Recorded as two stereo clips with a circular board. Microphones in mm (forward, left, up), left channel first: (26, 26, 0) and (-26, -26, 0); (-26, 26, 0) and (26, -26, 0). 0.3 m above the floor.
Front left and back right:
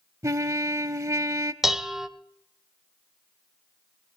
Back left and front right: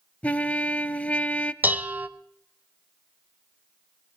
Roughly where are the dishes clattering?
Ahead right.